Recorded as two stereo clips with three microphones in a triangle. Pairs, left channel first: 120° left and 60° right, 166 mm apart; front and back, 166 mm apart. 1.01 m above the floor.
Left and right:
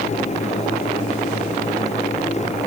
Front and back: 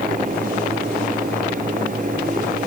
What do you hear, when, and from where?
Only background noise.